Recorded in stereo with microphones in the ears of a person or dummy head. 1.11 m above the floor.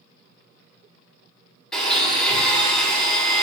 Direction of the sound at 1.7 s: 10° left (ahead or behind).